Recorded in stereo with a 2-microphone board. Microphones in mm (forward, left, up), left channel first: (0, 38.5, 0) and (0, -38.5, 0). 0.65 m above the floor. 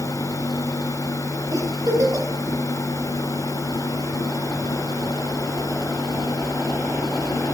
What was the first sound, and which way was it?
A giggle, 50° right (ahead or behind).